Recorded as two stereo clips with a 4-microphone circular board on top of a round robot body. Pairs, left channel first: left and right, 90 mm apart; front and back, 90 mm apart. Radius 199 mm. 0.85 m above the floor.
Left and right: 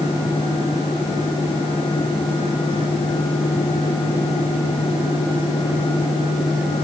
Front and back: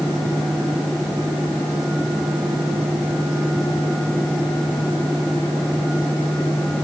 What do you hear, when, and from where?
Only background noise.